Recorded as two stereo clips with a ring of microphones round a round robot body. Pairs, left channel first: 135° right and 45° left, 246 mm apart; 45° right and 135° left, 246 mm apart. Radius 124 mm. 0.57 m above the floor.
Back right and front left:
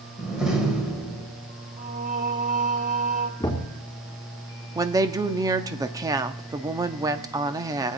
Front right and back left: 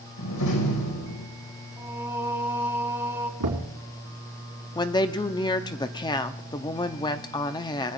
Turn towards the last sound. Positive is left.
turn(degrees=-5)